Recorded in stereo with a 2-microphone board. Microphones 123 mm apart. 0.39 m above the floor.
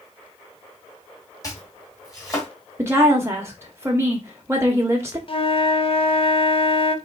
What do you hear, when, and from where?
1.4 s chopping: 25° left (ahead or behind), 2.5 m
2.8 s a woman speaking: 20° right (ahead or behind), 1.0 m
5.3 s a flute: 50° left (ahead or behind), 0.7 m